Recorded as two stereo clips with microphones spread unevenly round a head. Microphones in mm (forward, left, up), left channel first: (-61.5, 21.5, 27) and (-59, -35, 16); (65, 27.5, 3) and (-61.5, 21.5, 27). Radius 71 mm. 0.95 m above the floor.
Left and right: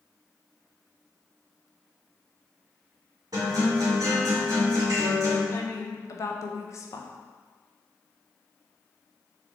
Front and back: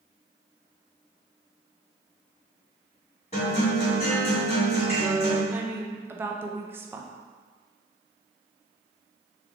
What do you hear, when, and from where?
3.3 s a guitar: 50° right, 1.5 m
5.5 s a woman speaking: 105° left, 0.5 m